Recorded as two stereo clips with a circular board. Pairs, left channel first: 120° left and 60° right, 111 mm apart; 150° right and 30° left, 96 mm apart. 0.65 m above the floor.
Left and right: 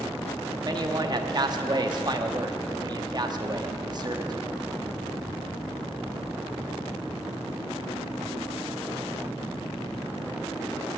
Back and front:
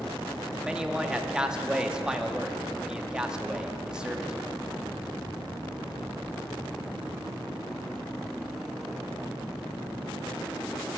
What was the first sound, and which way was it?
A man speaking, 50° right.